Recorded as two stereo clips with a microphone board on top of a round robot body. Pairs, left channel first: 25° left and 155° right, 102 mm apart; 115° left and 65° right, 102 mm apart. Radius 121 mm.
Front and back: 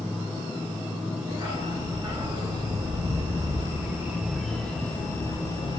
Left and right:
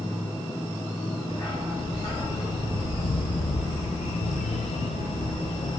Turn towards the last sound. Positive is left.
turn(degrees=65)